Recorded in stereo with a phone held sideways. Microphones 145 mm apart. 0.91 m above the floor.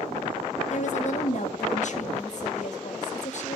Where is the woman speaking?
55° left (ahead or behind), 1.5 m.